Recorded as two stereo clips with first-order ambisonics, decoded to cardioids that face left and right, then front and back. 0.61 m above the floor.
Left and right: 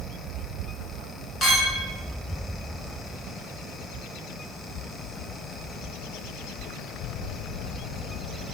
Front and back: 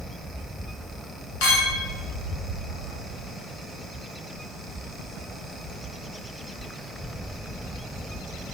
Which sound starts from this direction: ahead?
A clink, at 1.4 s.